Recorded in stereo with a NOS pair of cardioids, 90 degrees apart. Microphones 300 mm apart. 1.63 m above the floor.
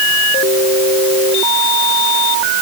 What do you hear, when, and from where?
Only background noise.